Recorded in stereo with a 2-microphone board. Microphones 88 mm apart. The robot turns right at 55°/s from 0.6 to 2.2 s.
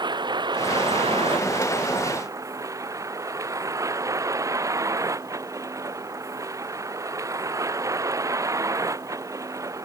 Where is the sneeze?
No sneeze in this recording.